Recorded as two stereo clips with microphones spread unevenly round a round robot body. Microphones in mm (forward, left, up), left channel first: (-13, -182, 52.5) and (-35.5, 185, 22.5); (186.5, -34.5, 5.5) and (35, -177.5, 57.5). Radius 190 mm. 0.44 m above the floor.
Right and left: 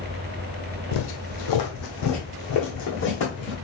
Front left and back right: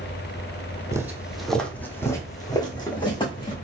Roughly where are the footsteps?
Ahead right.